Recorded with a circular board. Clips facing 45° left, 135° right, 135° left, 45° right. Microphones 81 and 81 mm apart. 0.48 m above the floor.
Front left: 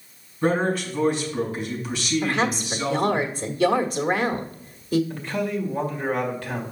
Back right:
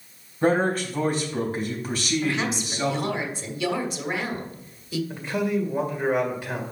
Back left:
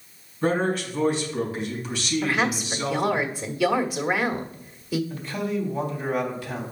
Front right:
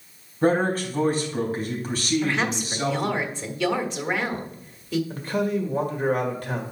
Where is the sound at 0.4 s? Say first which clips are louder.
Back right 1 dB, front right 2 dB; 90° right, 3.5 m.